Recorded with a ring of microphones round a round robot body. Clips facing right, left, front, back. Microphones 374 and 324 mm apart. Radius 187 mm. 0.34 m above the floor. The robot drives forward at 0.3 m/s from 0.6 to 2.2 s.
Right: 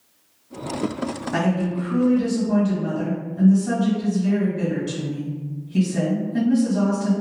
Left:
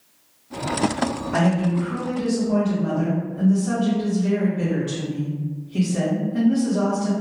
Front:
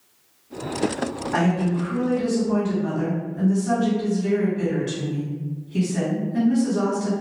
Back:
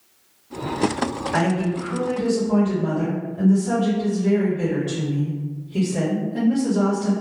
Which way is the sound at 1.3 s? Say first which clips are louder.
Left 1 dB, front 1 dB; 35° right.